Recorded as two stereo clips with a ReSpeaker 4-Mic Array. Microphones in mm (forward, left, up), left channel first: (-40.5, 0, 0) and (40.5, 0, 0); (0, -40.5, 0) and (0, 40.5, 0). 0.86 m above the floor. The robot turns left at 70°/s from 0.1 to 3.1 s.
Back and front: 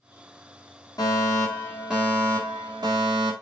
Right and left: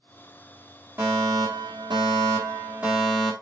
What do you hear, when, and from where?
1.0 s a fire alarm: 145° left, 3.5 m; by 3.3 s 5° right, 3.5 m